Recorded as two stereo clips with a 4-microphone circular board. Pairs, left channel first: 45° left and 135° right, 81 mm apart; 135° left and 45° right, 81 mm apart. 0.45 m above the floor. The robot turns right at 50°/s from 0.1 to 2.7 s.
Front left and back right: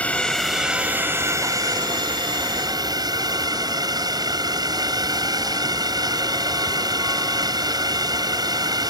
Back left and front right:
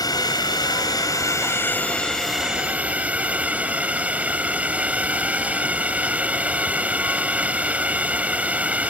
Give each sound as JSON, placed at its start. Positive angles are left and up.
{"t": 0.0, "sound": "a drone", "azimuth_deg": 115}